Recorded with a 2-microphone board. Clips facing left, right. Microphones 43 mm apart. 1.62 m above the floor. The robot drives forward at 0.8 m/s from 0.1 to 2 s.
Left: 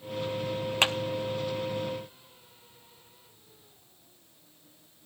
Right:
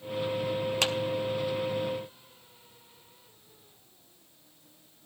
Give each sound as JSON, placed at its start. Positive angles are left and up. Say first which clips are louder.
{"t": 0.8, "sound": "a clap", "louder": "left 5 dB", "side_deg": 30, "distance_m": 0.6}